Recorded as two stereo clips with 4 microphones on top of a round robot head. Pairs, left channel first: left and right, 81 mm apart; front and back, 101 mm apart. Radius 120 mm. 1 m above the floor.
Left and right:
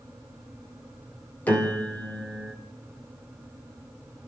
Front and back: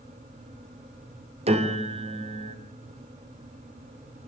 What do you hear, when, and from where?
1.5 s a piano: 165° left, 3 m